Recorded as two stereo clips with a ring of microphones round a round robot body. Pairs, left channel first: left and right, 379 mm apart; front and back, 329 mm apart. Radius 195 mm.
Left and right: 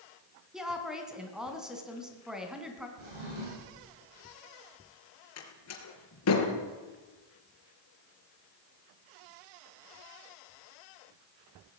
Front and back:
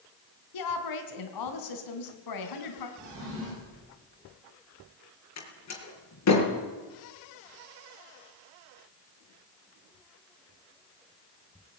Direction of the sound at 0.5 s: Straight ahead.